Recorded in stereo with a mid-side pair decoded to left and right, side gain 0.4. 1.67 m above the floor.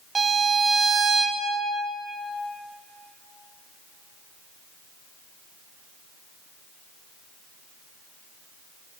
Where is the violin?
40° right, 2 m.